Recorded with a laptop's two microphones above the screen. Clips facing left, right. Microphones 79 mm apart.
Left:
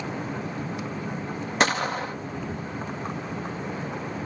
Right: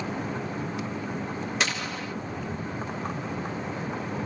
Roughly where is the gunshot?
Left.